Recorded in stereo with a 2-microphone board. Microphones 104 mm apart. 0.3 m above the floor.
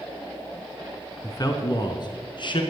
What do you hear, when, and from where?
1.2 s a man speaking: 35° left (ahead or behind), 3 m; by 2.6 s 50° left (ahead or behind), 3.5 m